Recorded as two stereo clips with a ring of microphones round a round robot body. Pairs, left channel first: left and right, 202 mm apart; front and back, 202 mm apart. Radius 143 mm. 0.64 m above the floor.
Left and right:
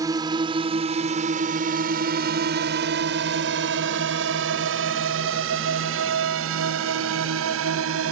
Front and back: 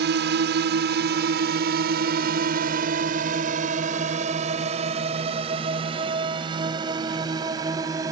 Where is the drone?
165° right; by 8.1 s 100° right.